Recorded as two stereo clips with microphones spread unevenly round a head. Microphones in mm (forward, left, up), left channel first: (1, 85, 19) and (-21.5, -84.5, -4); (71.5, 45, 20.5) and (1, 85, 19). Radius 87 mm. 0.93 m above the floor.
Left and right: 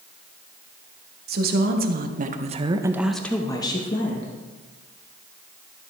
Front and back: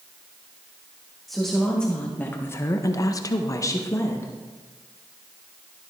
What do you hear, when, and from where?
1.3 s a woman speaking: 120° right, 1.5 m; by 4.3 s 25° left, 1.4 m